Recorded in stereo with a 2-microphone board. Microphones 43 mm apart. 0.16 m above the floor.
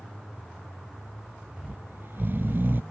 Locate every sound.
1.6 s snoring: 55° right (ahead or behind)